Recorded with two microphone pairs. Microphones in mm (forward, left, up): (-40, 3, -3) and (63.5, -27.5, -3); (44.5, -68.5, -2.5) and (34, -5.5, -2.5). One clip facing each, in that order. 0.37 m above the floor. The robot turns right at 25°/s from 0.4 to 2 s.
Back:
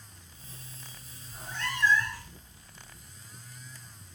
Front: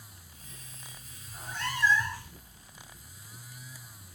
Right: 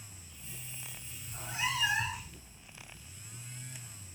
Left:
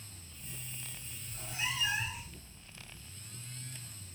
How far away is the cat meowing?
About 1.4 m.